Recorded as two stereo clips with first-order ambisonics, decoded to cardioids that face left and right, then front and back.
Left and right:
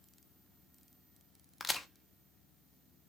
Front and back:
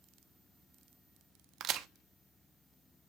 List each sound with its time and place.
1.6 s a crack: 165° left, 1.0 m